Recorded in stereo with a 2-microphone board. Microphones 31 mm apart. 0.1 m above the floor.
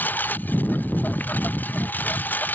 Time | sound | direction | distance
0.0 | a lawn mower | 75° left (ahead or behind) | ?